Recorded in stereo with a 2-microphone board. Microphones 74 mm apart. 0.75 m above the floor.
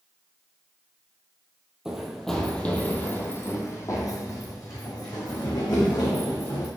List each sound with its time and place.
1.9 s running footsteps: 10° right (ahead or behind), 1.3 m; by 6.7 s 65° left (ahead or behind), 3.5 m